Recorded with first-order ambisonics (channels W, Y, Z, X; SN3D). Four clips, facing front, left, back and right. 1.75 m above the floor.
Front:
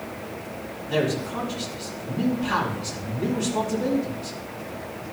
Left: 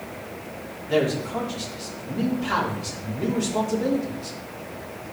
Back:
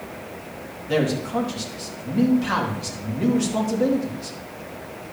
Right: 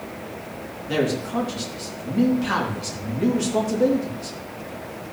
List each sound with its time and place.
0.9 s a man speaking: 140° right, 4 m